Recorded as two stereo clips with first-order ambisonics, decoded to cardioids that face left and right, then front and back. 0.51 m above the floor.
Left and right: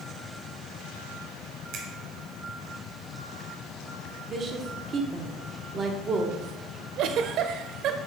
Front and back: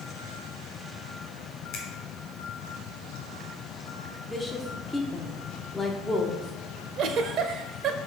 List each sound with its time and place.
1.7 s a finger snap: 45° right, 2 m
4.3 s a woman speaking: 75° right, 0.9 m
7.0 s a giggle: 135° right, 0.6 m